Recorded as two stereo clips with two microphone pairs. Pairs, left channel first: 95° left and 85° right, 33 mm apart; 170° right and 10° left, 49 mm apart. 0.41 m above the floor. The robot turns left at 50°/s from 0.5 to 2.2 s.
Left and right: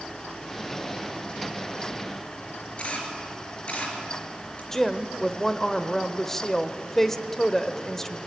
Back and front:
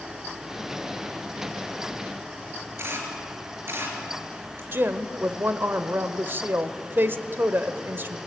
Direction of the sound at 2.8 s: 40° left.